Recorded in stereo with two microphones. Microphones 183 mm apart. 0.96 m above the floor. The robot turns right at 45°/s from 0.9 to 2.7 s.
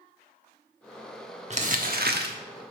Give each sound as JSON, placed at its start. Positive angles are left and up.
{"t": 1.5, "sound": "crumpling", "azimuth_deg": -135, "distance_m": 1.1}